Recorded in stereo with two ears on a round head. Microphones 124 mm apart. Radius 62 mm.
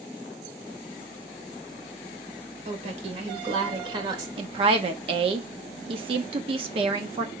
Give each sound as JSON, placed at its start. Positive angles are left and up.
{"t": 2.6, "sound": "a woman speaking", "side_deg": -55, "distance_m": 2.5}
{"t": 4.4, "sound": "a woman speaking", "side_deg": -40, "distance_m": 1.0}